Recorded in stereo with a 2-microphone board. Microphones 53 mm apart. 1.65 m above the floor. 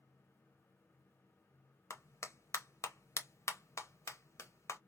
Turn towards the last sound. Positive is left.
turn(degrees=60)  # may be behind; listen again after turning